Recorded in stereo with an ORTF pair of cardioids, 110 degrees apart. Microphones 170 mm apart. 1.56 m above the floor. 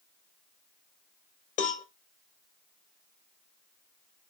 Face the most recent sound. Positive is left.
turn(degrees=50)